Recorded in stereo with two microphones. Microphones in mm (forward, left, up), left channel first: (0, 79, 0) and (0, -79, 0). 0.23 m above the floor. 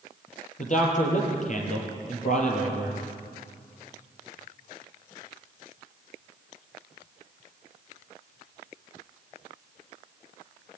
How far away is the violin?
No violin in this recording.